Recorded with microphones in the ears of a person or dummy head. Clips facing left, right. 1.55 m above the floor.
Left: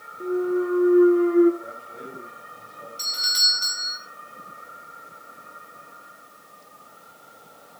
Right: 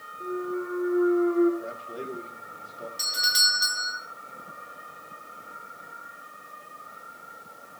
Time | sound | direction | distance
0.2 | a clunk | 50° left (ahead or behind) | 2 m
1.6 | a man speaking | 60° right (ahead or behind) | 7 m
3.0 | a doorbell | 15° right (ahead or behind) | 5 m